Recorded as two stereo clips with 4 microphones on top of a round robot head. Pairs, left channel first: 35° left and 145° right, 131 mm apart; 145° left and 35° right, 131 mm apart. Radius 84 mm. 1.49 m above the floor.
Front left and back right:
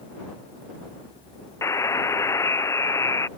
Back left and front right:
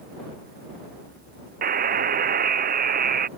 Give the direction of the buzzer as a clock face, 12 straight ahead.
1 o'clock.